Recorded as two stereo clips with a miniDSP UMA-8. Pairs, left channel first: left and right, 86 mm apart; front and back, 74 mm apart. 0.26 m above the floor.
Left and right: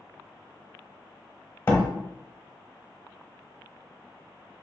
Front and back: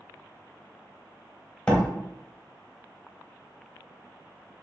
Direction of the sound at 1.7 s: 60° left.